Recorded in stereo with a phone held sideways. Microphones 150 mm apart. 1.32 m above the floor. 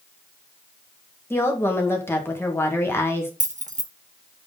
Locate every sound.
1.3 s a woman speaking: 15° left (ahead or behind), 1.5 m
3.4 s keys jangling: 50° right (ahead or behind), 0.8 m